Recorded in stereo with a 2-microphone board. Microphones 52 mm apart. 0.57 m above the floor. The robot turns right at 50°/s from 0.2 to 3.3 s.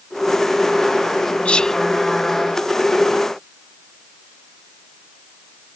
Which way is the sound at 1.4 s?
25° left (ahead or behind).